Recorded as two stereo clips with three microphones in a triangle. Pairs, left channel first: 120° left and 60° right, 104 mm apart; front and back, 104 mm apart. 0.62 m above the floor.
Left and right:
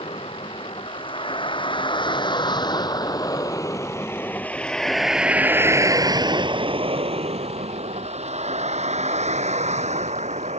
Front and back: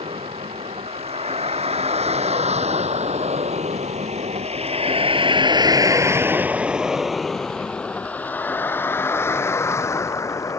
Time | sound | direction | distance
0.0 | a vehicle | 155° left | ?